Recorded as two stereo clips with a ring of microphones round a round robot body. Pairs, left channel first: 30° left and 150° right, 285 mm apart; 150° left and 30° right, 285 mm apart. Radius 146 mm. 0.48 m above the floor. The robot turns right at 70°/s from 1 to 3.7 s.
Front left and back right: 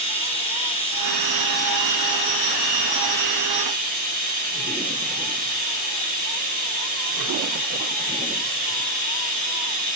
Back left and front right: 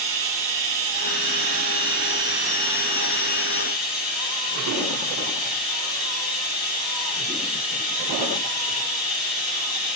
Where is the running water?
40° right, 7 m; by 10.0 s 150° left, 7 m.